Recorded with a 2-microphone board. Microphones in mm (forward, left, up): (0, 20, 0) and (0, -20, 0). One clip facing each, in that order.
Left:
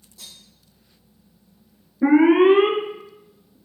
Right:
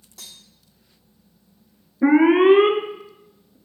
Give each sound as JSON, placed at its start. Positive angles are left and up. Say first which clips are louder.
{"t": 0.2, "sound": "cutlery clinking", "louder": "right 1 dB", "side_deg": -70, "distance_m": 2.0}
{"t": 2.0, "sound": "an alarm", "louder": "even", "side_deg": -15, "distance_m": 0.9}